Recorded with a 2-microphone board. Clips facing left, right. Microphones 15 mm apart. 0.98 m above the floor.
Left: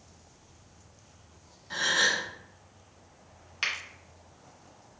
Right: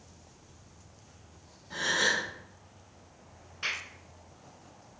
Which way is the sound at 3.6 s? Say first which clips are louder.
Left 3 dB; 60° left (ahead or behind).